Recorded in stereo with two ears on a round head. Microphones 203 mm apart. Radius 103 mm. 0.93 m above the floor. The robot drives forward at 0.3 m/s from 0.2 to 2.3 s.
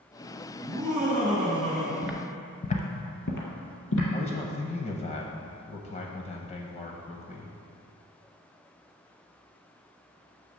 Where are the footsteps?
10° right (ahead or behind), 0.9 m; by 4.0 s 65° left (ahead or behind), 1.9 m.